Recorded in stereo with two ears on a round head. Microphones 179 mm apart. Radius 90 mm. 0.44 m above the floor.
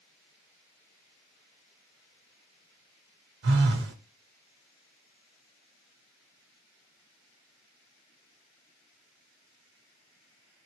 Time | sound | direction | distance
3.4 | a phone buzzing | 60° right (ahead or behind) | 0.8 m